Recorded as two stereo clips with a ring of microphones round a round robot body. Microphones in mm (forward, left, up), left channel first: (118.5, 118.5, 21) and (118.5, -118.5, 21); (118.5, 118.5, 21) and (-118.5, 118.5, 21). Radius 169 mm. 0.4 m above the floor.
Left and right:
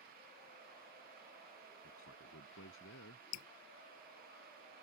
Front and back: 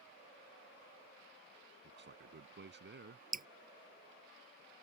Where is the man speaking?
140° left.